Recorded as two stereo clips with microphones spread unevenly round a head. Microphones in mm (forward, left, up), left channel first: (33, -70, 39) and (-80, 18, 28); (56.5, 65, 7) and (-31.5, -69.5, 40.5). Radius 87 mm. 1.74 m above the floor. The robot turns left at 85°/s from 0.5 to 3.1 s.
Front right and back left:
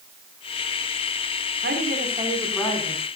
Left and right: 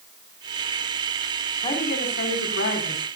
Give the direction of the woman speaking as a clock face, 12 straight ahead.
8 o'clock.